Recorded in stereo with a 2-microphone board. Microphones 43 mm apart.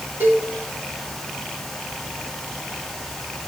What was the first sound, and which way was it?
A cowbell, 70° right (ahead or behind).